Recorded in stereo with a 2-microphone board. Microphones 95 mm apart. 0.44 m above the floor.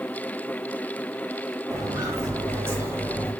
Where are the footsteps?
35° right (ahead or behind), 6 m; by 3.3 s 25° right (ahead or behind), 5.5 m.